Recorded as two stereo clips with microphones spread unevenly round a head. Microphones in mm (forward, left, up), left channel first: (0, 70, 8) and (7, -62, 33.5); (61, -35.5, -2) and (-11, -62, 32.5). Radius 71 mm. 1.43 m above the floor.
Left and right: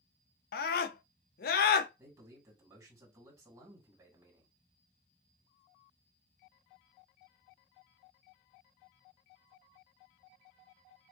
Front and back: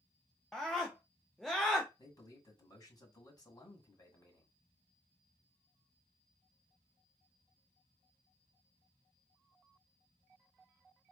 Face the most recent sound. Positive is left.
turn(degrees=-20)